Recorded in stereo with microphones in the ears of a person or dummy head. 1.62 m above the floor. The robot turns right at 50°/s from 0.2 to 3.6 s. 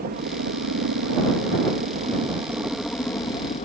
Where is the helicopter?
130° right; by 3.7 s 40° left.